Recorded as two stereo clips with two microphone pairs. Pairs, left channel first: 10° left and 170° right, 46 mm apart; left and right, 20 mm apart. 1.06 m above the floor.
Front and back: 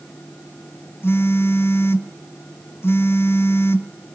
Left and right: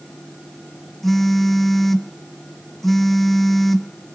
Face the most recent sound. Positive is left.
turn(degrees=10)